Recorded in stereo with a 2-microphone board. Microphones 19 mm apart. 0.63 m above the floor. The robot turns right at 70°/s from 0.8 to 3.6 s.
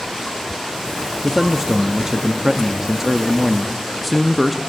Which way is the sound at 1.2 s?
5° right (ahead or behind).